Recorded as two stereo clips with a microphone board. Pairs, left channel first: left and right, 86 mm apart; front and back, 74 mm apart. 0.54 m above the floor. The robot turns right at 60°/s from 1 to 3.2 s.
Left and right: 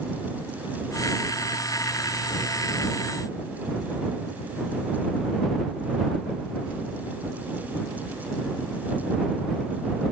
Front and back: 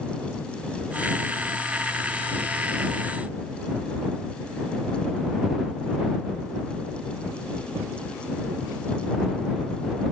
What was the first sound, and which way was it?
Only background noise.